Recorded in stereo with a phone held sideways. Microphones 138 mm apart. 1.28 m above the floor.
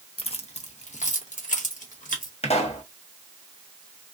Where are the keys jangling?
45° left (ahead or behind), 0.7 m; by 2.3 s 75° left (ahead or behind), 1.7 m.